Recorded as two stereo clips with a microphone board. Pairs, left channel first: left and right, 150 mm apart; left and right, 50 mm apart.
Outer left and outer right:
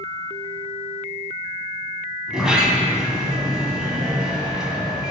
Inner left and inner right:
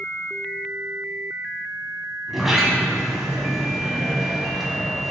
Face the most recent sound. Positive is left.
turn(degrees=-5)  # may be behind; listen again after turning